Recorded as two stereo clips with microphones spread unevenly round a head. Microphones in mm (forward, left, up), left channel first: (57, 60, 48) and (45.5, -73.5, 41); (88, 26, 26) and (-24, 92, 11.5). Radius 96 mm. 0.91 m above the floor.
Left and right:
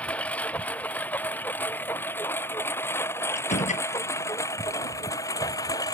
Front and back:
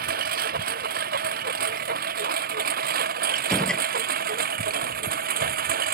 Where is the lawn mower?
170° left; by 6.0 s 155° left.